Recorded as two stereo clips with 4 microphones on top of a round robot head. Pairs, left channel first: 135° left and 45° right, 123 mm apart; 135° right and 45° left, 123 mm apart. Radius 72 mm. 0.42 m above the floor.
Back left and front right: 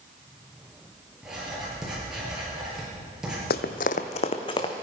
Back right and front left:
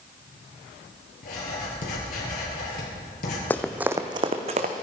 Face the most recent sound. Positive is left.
turn(degrees=75)